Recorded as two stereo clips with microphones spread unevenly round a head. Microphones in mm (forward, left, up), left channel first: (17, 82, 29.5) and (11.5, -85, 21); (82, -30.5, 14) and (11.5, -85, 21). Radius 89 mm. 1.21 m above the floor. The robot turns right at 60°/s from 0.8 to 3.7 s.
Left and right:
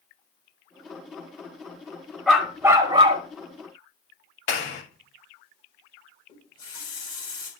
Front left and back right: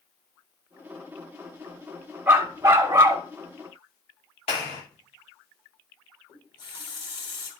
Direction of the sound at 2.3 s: 175° left.